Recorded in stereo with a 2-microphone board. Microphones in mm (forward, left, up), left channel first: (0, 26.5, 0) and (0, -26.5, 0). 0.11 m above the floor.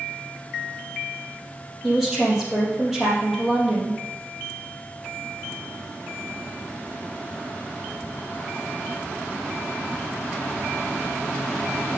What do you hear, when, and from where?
1.8 s a woman speaking: 10° right (ahead or behind), 3 m